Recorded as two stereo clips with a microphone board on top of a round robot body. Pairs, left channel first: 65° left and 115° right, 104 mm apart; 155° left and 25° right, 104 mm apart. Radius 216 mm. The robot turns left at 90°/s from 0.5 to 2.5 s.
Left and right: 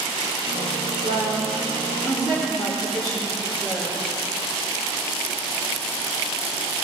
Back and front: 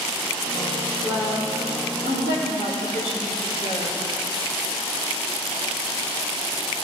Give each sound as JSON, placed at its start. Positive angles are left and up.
{"t": 1.0, "sound": "a woman speaking", "azimuth_deg": -95, "distance_m": 3.0}